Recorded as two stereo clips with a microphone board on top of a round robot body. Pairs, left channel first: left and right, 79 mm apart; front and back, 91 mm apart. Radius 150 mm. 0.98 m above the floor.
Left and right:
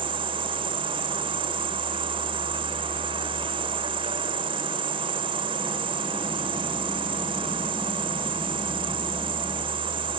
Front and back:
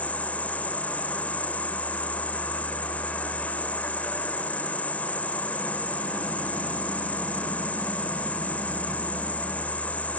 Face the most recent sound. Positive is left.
turn(degrees=-75)